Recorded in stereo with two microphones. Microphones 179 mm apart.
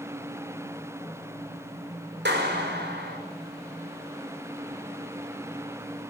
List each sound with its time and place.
2.2 s a clap: 75° right (ahead or behind), 5.5 m